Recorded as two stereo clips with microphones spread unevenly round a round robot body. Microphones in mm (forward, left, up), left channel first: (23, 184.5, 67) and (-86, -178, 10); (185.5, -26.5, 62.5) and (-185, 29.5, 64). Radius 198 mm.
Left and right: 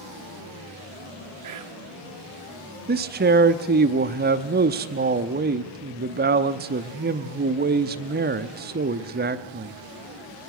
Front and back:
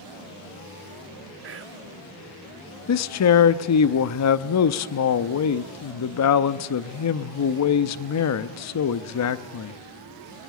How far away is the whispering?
About 1.6 m.